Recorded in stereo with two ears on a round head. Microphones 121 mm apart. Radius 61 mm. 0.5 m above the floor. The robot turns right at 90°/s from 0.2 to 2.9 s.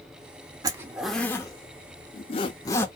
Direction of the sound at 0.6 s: 25° right (ahead or behind).